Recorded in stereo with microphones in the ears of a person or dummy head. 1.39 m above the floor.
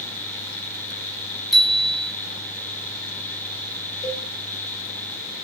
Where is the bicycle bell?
Centre (ahead or behind), 8 m.